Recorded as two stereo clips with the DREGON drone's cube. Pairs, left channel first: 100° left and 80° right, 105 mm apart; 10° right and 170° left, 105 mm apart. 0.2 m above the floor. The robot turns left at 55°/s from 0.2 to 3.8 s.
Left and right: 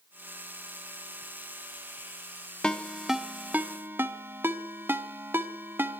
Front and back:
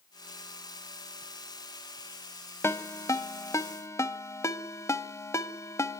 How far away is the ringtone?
About 0.9 m.